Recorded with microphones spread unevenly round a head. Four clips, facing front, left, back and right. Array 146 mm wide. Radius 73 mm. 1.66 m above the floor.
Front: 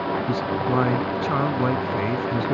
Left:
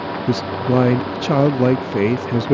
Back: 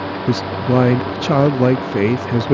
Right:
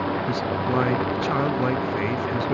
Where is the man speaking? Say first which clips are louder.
Left 5 dB, back 5 dB; 140° left.